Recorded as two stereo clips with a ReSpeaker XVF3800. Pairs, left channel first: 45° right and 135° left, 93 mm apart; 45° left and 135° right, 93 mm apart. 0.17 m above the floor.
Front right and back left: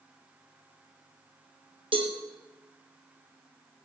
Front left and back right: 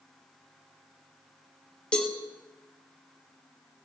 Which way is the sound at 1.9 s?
125° left.